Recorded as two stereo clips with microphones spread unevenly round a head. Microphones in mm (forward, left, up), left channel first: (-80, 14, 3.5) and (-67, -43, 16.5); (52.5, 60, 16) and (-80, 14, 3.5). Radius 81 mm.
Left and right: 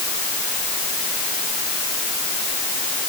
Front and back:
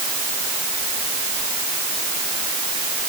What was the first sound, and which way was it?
Only background noise.